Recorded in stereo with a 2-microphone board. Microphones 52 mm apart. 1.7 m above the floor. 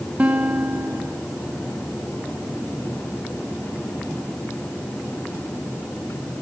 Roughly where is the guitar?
Right.